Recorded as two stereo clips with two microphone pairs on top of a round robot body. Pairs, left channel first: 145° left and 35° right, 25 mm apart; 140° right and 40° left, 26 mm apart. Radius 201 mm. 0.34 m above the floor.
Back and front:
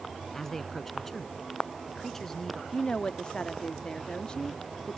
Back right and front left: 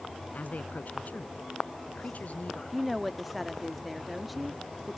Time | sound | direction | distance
0.3 | a man speaking | 135° right | ?
2.7 | a woman speaking | 135° left | ?